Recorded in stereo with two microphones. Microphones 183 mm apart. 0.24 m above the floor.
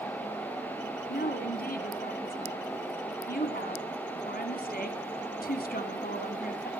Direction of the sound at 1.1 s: 55° left (ahead or behind).